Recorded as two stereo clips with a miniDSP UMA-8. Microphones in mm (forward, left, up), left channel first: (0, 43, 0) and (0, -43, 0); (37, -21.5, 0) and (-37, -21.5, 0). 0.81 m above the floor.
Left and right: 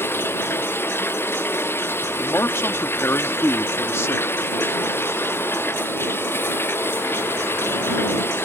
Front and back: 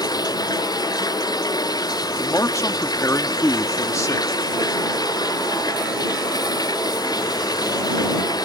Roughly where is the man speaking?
Ahead left.